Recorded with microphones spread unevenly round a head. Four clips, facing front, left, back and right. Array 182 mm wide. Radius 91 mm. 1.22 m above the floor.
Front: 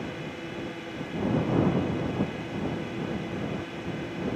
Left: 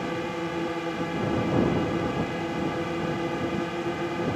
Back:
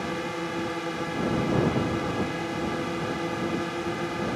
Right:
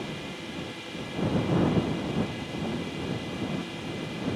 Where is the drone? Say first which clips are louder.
Left 8 dB, back 6 dB; 115° left.